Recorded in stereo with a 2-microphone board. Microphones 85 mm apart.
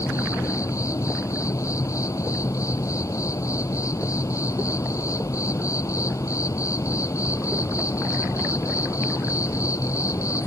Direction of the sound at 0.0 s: 40° left (ahead or behind).